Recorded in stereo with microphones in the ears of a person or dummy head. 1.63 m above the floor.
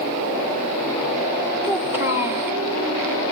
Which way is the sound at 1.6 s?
15° right (ahead or behind).